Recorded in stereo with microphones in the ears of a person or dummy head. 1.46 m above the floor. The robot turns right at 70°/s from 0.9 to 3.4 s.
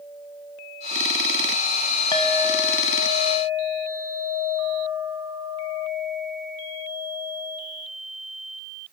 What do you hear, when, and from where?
2.1 s a clink: 25° left, 0.7 m; by 7.6 s 115° left, 0.7 m